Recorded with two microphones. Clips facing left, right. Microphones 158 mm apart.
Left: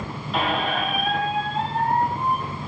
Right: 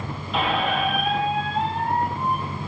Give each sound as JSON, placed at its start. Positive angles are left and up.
{"t": 0.3, "sound": "a squeak", "side_deg": 0, "distance_m": 1.2}